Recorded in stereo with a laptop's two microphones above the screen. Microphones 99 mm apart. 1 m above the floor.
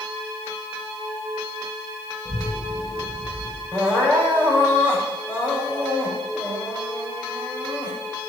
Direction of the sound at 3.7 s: 20° left (ahead or behind).